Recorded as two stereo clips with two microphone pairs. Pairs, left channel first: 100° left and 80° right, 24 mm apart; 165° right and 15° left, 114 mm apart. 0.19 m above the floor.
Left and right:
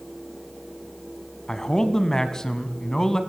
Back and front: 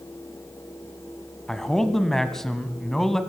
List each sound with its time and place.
1.5 s a man speaking: 110° left, 1.5 m